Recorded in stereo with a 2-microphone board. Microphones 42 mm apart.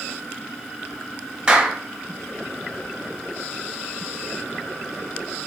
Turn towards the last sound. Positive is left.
turn(degrees=-15)  # may be behind; listen again after turning